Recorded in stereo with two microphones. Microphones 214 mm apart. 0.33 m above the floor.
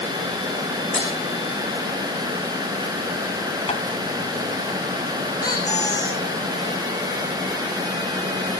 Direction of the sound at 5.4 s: 15° left (ahead or behind).